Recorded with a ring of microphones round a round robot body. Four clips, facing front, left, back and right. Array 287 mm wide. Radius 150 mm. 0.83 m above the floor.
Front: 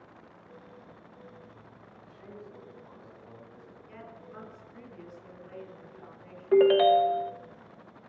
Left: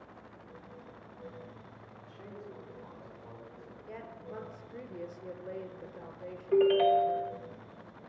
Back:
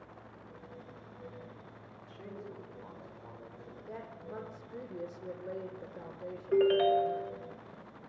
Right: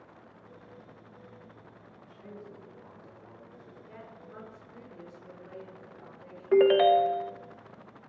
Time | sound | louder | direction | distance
2.0 | a man speaking | even, back 2 dB | straight behind | 8.5 m
3.9 | a woman speaking | left 5 dB, back 4 dB | 145° left | 4 m
6.5 | a ringtone | right 4 dB, front 6 dB | 55° right | 0.6 m